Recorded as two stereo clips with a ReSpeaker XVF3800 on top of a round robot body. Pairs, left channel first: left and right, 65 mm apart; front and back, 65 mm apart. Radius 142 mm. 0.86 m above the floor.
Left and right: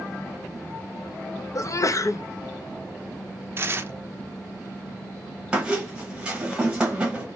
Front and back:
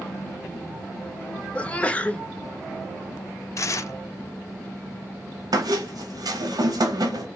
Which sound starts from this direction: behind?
A squeak, at 5.5 s.